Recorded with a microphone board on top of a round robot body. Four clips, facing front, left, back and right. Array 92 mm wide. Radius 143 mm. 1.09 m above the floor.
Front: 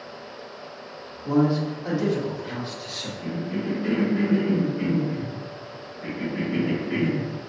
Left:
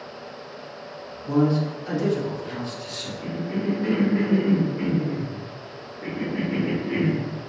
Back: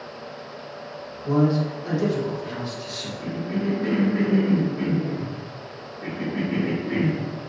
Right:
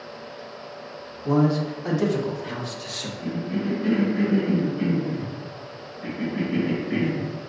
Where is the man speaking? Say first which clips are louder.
Even, even; 90° right, 0.9 m.